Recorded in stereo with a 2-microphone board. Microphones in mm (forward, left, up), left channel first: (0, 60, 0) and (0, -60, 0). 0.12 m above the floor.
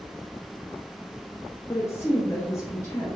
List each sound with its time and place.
1.7 s a woman speaking: 25° left (ahead or behind), 1.4 m